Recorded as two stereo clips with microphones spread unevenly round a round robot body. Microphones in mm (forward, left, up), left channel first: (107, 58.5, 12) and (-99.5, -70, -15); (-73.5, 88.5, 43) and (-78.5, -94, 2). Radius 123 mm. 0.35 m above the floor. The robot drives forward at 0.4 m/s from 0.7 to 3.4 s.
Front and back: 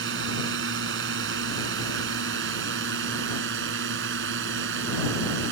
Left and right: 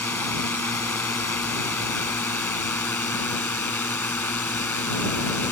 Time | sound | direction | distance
0.0 | a drone | 170° left | ?